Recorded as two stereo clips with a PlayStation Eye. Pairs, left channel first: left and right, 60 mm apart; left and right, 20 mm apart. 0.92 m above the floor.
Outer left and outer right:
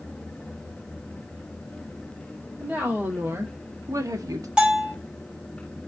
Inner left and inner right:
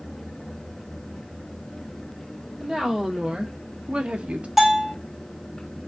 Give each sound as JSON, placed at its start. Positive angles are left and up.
{"t": 2.6, "sound": "a woman speaking", "side_deg": -25, "distance_m": 1.6}
{"t": 4.6, "sound": "a bell", "side_deg": -15, "distance_m": 1.5}